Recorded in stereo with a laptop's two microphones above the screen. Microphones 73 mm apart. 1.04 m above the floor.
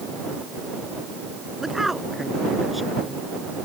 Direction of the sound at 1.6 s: 5° right (ahead or behind).